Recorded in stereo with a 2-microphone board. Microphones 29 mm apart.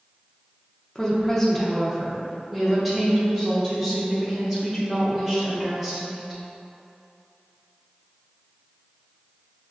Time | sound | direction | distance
0.9 | a woman speaking | 20° left (ahead or behind) | 0.6 m